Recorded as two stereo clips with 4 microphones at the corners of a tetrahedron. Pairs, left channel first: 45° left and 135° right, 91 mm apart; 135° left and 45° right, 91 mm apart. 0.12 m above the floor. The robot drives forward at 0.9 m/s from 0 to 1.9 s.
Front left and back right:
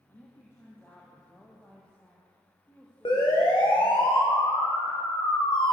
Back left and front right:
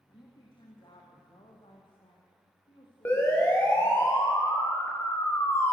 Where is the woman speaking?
105° left, 5 m; by 4.0 s 120° left, 5.5 m.